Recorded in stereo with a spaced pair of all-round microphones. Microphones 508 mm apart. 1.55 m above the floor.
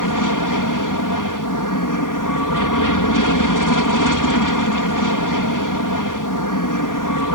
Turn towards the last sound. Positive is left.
turn(degrees=40)  # may be behind; listen again after turning